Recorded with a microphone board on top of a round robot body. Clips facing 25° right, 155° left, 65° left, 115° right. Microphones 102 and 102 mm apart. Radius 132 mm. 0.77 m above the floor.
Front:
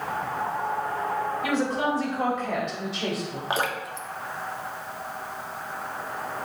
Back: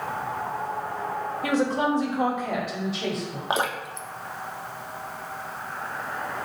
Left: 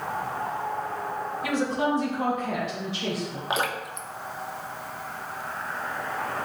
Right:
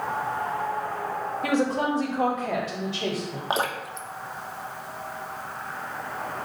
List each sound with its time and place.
1.4 s a woman speaking: 150° right, 2.5 m; by 3.4 s 105° right, 3 m
3.5 s dripping: 150° right, 1.3 m